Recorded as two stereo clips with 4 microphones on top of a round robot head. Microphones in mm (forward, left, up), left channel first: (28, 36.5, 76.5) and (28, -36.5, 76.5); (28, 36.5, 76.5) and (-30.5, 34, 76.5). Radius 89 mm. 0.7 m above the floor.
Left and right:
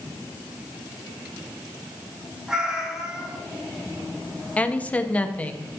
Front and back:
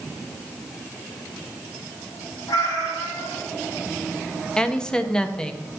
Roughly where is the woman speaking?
Ahead left.